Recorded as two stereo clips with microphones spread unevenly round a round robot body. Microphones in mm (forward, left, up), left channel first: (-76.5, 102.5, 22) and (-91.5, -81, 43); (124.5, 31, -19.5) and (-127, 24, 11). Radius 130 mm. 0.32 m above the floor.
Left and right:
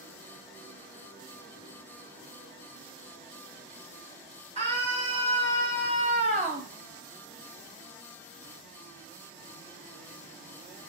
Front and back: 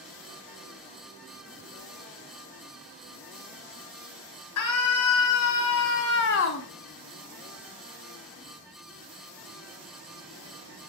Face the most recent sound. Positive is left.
turn(degrees=-40)